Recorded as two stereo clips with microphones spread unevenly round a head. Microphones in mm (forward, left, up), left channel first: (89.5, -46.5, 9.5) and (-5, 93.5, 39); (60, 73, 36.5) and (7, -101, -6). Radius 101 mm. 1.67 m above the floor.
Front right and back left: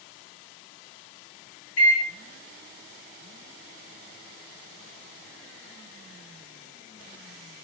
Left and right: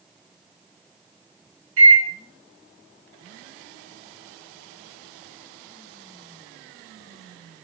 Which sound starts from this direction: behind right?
A microwave, at 1.8 s.